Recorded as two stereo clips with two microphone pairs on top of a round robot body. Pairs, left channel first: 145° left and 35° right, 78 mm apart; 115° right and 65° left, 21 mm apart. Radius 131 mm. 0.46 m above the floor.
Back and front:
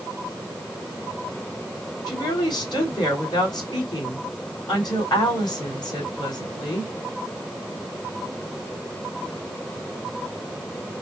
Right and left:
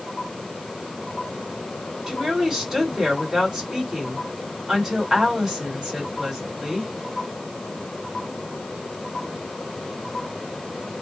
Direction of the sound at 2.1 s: 135° left.